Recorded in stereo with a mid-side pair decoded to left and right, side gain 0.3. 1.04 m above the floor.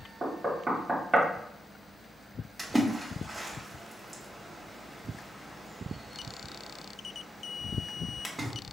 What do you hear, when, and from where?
0.2 s knocking: 25° right, 0.9 m
2.6 s a splash: 20° right, 1.2 m